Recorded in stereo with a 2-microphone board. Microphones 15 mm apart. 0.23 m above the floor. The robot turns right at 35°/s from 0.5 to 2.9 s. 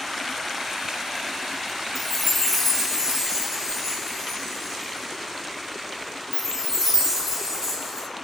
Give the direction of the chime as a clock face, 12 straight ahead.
6 o'clock.